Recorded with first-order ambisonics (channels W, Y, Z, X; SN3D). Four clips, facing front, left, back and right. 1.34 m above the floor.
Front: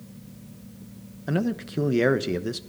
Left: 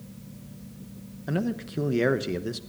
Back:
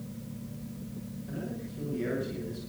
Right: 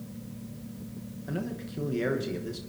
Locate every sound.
1.3 s a man speaking: 25° left, 1.0 m